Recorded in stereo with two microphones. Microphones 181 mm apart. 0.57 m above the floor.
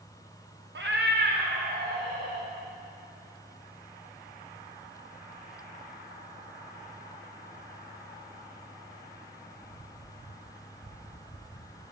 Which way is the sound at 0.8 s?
75° right (ahead or behind).